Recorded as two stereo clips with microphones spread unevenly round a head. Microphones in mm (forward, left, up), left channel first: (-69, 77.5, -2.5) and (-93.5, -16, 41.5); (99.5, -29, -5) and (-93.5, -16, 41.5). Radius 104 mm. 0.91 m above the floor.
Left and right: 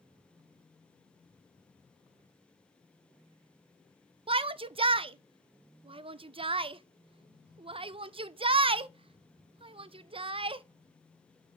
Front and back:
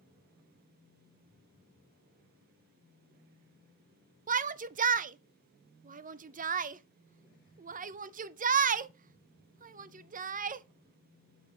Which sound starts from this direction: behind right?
A shout, at 4.3 s.